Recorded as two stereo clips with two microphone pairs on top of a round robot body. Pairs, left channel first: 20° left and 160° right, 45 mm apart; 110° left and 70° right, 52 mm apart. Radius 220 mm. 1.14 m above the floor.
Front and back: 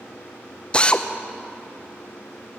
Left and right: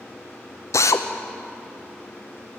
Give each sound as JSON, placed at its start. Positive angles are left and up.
{"t": 0.7, "sound": "a drill", "azimuth_deg": 85, "distance_m": 1.0}